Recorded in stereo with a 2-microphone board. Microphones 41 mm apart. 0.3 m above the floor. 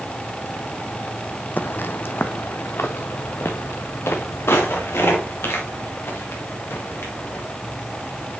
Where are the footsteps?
50° left (ahead or behind), 0.6 m; by 7.5 s 80° left, 4 m.